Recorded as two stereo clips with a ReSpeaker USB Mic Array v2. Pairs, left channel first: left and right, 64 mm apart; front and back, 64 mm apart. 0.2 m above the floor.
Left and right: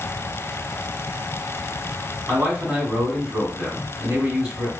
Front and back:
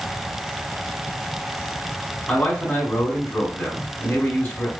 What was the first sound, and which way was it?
A man speaking, 35° right.